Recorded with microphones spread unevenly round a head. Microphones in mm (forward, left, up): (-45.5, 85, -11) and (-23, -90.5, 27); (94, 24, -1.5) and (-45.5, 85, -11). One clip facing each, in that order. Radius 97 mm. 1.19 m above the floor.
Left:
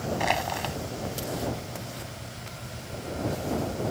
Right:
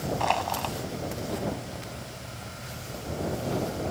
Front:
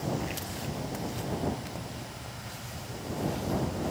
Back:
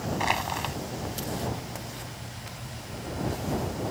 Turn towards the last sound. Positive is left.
turn(degrees=170)